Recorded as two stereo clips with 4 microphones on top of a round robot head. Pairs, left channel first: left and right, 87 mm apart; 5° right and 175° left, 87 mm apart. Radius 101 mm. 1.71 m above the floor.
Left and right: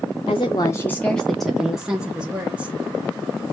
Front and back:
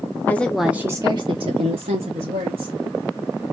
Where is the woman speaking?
55° left, 0.7 m; by 2.8 s 165° right, 1.6 m.